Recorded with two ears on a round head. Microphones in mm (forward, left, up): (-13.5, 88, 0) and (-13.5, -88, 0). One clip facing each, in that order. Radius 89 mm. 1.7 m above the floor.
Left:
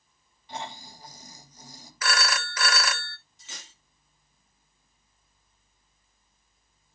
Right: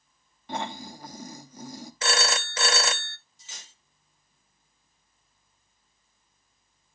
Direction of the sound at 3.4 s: 50° left (ahead or behind).